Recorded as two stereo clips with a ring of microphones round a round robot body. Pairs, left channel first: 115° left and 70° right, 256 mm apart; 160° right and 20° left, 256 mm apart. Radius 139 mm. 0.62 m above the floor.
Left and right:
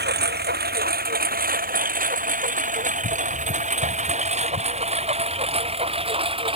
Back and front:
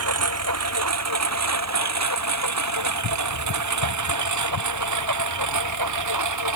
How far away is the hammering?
I don't hear hammering.